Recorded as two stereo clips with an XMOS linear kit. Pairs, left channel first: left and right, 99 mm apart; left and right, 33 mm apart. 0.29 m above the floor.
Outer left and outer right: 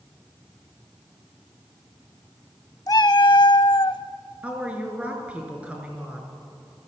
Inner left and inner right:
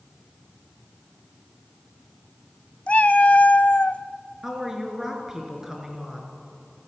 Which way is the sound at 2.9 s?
40° left (ahead or behind).